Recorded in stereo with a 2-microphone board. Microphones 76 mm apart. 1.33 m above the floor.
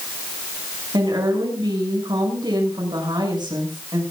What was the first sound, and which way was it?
A woman speaking, 80° right.